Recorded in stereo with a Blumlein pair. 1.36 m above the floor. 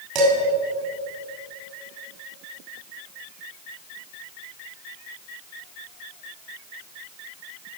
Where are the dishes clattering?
40° right, 3 m.